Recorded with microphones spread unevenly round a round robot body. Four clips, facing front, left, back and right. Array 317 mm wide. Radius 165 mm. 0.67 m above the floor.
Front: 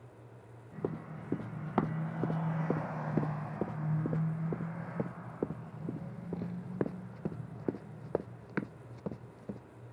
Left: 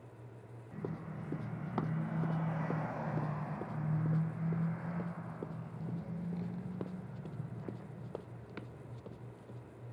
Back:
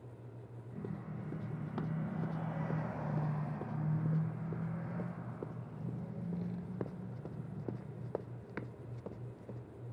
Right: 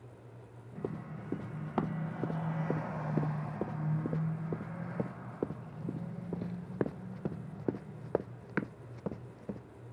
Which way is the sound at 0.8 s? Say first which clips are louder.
Right 3 dB, front 8 dB; 15° right.